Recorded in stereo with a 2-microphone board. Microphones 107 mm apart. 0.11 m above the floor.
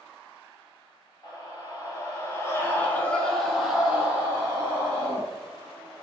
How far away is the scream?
About 1.7 m.